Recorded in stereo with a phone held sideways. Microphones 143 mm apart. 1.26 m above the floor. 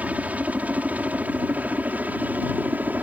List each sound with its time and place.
0.0 s a helicopter: 10° right (ahead or behind)